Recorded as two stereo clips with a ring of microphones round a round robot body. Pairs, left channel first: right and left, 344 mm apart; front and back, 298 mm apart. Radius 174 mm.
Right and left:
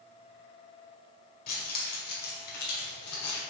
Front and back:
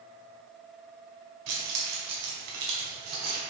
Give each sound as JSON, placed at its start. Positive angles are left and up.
{"t": 1.5, "sound": "keys jangling", "azimuth_deg": -155, "distance_m": 1.9}